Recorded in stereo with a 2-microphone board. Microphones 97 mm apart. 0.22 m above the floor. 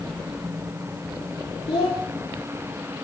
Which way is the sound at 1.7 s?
70° left (ahead or behind).